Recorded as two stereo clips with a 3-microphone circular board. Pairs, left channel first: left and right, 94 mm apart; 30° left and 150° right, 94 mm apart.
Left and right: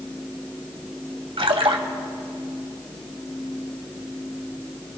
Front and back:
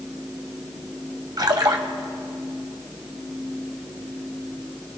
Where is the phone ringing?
I don't hear a phone ringing.